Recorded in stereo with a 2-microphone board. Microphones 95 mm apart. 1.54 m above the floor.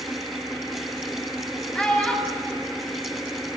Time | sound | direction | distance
1.8 | a child speaking | 10° left (ahead or behind) | 6.5 m